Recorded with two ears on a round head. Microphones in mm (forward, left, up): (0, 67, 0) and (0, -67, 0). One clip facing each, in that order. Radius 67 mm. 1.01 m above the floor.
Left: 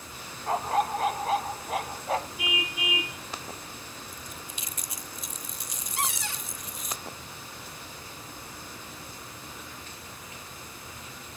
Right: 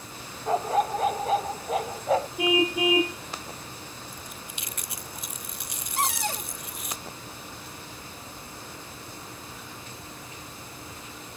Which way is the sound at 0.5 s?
85° right.